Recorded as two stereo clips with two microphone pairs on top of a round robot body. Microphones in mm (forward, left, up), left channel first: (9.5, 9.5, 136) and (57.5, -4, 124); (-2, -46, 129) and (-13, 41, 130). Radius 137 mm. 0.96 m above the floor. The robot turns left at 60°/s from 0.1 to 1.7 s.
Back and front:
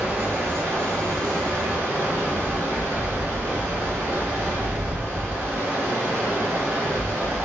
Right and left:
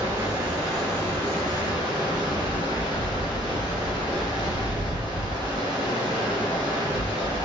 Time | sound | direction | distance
0.0 | running water | 40° left | 1.5 m